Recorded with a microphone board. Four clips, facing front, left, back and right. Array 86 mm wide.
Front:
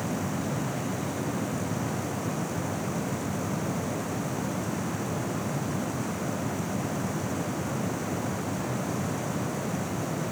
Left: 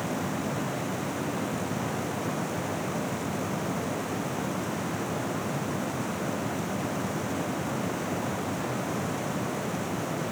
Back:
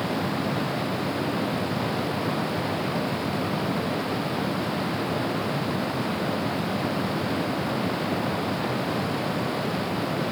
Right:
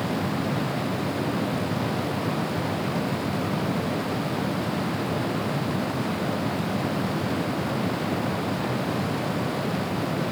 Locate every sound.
Only background noise.